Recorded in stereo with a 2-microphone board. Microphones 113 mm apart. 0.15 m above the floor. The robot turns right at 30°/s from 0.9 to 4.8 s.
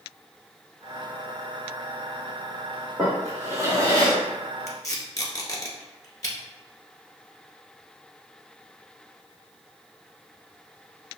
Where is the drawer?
170° right, 1.9 m; by 4.2 s 135° right, 1.9 m.